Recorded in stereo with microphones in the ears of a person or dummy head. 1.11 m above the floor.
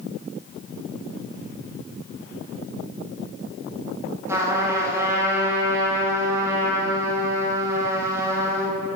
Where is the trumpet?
15° right (ahead or behind), 1.2 m.